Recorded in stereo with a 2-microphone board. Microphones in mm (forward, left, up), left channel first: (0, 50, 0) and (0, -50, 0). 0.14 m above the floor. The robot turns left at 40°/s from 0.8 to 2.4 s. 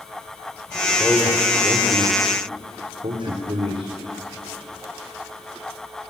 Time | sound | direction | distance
1.0 | a man speaking | 5° right (ahead or behind) | 5 m